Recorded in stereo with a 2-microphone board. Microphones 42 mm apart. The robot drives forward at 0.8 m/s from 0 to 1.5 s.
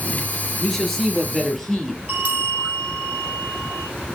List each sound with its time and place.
0.6 s a man speaking: 5° left (ahead or behind), 2.5 m
2.1 s a bell: 40° right (ahead or behind), 4.5 m